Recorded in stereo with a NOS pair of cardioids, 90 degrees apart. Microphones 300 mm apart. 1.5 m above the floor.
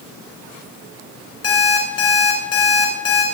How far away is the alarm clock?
About 4 m.